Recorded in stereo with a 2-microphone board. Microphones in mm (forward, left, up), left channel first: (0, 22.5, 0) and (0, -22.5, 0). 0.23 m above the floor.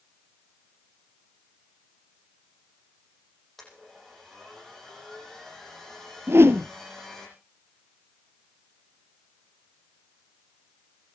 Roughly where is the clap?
I don't hear a clap.